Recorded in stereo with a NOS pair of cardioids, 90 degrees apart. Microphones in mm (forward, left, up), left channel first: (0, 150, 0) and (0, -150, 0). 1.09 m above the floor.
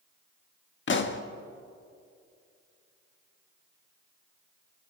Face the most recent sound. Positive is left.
turn(degrees=40)